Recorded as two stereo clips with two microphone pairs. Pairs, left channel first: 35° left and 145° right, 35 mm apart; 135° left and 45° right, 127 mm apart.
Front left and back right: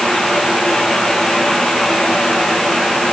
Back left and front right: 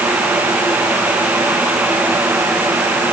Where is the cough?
No cough in this recording.